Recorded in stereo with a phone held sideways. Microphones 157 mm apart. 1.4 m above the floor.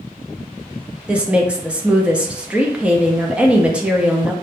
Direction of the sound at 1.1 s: 5° right (ahead or behind).